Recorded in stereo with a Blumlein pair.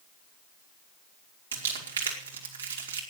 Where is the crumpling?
70° right, 3 m.